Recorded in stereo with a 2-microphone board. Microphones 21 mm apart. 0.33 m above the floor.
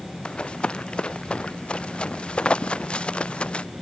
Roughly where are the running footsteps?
Left.